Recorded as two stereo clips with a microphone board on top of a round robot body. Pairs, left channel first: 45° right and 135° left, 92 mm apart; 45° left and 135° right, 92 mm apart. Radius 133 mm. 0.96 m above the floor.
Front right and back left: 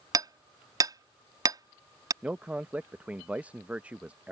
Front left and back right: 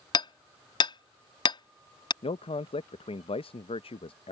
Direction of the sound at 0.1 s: 85° left.